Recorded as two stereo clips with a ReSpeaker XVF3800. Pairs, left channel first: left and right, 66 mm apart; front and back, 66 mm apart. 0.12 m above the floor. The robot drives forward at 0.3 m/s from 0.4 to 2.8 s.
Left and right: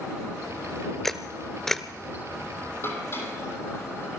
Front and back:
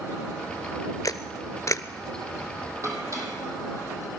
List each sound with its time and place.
1.0 s a camera shutter: 5° left, 0.8 m; by 1.9 s 10° left, 0.6 m
2.8 s dishes clattering: 140° left, 3 m